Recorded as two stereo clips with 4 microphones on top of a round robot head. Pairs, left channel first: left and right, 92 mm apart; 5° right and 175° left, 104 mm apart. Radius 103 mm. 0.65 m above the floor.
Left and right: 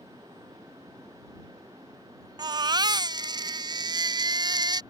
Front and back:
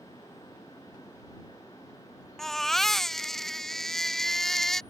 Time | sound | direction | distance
2.4 | a baby crying | 90° right | ?